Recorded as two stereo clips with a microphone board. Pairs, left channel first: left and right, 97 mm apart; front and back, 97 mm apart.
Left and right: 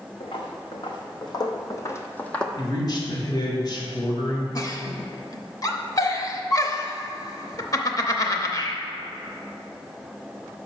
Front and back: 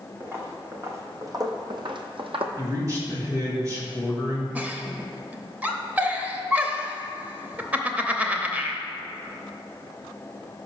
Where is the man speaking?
130° left, 2.5 m.